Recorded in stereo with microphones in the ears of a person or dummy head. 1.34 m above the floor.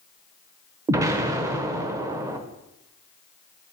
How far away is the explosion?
About 0.8 m.